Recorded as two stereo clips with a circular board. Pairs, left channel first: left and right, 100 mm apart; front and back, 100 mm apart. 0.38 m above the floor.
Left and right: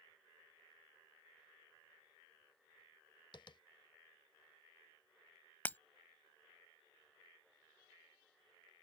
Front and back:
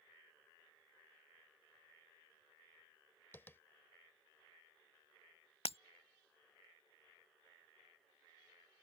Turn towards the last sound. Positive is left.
turn(degrees=15)